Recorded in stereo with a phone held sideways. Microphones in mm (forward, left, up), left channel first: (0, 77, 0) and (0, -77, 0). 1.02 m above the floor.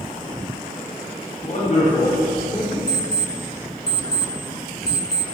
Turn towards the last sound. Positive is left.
turn(degrees=80)